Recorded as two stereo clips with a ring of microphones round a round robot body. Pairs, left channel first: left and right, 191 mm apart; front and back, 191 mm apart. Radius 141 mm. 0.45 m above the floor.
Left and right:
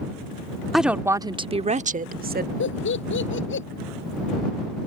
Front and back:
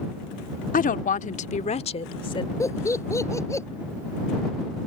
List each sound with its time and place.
0.7 s a woman speaking: straight ahead; by 2.5 s 65° right
2.6 s laughter: 75° left